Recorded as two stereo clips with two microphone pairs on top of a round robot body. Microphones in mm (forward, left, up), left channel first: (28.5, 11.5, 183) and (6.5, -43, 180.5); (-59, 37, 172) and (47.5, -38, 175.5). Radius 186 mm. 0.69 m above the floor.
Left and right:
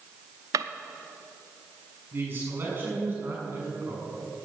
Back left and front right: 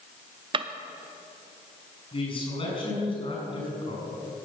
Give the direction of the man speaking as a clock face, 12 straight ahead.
6 o'clock.